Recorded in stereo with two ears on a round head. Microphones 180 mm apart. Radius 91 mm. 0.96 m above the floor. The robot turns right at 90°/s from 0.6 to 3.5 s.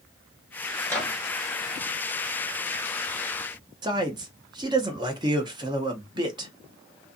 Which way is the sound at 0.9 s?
165° left.